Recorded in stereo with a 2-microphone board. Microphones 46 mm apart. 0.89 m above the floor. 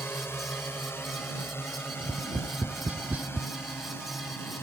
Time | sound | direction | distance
0.0 | a drone | 55° left (ahead or behind) | ?
2.0 | tapping | 40° right (ahead or behind) | ?